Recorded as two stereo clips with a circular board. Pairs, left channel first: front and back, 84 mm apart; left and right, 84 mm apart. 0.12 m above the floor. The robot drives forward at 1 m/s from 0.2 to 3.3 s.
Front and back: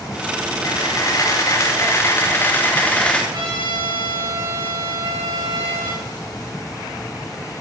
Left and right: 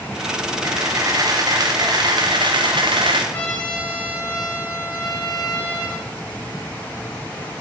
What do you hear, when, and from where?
0.6 s a camera shutter: 45° right, 4.5 m; by 3.2 s 80° right, 3 m
3.3 s a trumpet: 160° left, 6 m